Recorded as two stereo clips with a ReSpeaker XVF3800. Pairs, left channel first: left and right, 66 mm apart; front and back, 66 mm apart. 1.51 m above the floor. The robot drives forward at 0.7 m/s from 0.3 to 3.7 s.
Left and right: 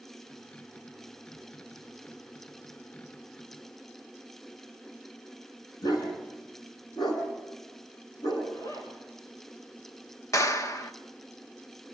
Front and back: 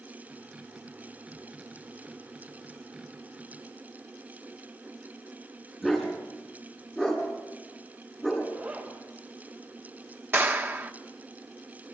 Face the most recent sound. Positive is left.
turn(degrees=125)